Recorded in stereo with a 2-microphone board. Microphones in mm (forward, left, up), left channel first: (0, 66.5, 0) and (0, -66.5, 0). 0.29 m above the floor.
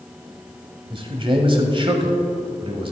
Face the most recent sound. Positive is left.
turn(degrees=-40)  # may be behind; listen again after turning